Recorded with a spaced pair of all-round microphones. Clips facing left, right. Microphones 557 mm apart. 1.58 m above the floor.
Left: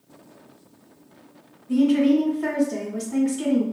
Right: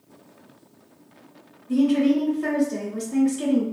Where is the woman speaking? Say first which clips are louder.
Left 1 dB; 5° left (ahead or behind), 0.8 m.